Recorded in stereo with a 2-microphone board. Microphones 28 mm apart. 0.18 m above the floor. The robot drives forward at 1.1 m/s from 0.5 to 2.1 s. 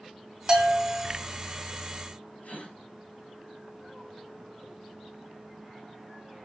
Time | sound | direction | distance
0.5 | a bell | 30° right (ahead or behind) | 1.4 m
2.4 | a gasp | 60° left (ahead or behind) | 3.5 m